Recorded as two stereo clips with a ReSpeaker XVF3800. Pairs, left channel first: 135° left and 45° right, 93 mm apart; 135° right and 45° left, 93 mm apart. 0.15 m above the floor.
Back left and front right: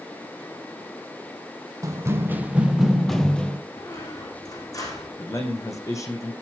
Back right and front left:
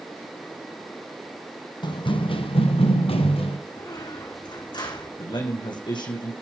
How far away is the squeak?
About 7 m.